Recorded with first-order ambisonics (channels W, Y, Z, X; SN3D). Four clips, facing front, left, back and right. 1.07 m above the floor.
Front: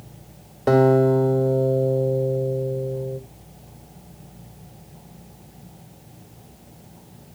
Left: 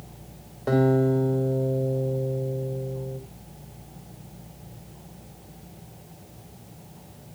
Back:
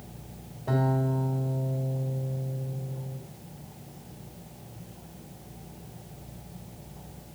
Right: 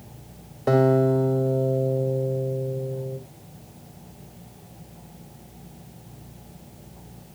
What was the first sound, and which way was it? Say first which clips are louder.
A guitar: right 2 dB, front 12 dB; 10° right.